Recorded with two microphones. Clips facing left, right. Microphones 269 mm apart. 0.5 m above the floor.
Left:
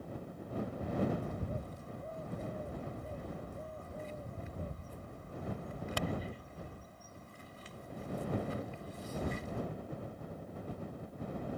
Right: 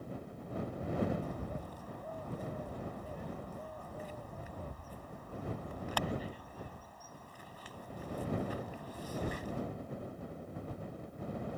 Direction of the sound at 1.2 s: 25° left (ahead or behind).